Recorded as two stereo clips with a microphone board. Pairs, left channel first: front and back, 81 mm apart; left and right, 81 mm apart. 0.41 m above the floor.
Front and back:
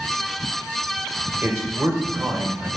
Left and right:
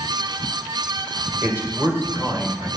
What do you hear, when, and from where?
1.4 s a man speaking: 140° right, 1.9 m